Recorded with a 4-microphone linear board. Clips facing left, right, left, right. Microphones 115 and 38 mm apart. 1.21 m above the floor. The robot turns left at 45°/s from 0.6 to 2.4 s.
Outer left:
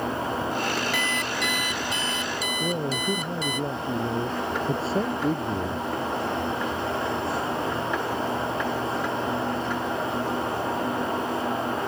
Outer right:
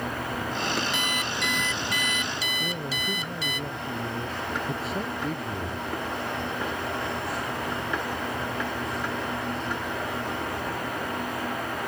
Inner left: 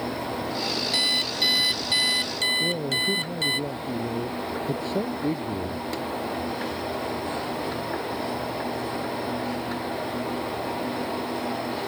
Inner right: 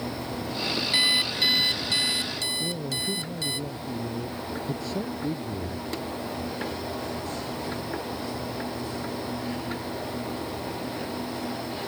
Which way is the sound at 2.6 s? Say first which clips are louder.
Outer left 5 dB, inner left 5 dB; 30° left (ahead or behind).